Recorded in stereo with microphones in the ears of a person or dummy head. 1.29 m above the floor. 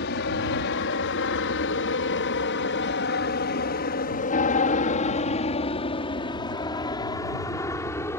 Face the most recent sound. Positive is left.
turn(degrees=10)  # may be behind; listen again after turning